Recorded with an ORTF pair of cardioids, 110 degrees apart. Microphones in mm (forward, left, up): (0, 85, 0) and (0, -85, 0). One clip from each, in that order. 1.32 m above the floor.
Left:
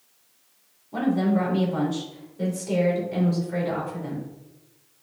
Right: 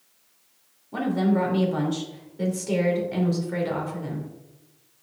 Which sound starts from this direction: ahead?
A woman speaking, at 0.9 s.